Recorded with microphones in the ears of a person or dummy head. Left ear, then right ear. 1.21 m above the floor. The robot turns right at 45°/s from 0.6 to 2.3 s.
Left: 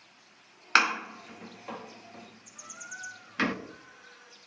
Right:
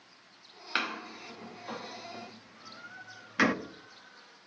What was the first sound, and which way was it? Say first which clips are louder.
A door slam: left 9 dB; 50° left (ahead or behind).